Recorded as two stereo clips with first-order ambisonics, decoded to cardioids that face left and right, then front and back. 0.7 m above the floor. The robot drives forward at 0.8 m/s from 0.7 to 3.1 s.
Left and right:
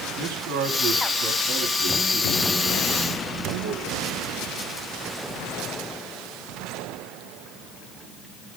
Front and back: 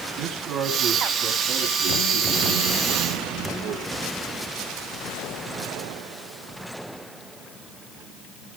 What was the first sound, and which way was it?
A man speaking, 120° right.